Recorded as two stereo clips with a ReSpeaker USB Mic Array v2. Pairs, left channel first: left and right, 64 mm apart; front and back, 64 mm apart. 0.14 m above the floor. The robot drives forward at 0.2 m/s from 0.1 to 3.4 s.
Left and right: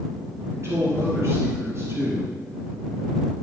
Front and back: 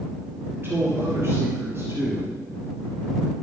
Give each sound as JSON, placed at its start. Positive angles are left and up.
{"t": 0.5, "sound": "a man speaking", "azimuth_deg": -125, "distance_m": 3.0}